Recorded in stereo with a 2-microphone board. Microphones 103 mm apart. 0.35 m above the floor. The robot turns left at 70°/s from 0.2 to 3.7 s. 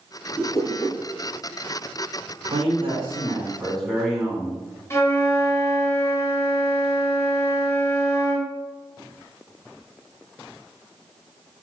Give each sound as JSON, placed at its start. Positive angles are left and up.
{"t": 0.4, "sound": "a whoosh", "azimuth_deg": 40, "distance_m": 2.5}
{"t": 2.4, "sound": "a man speaking", "azimuth_deg": -95, "distance_m": 3.5}
{"t": 4.9, "sound": "a flute", "side_deg": 30, "distance_m": 1.6}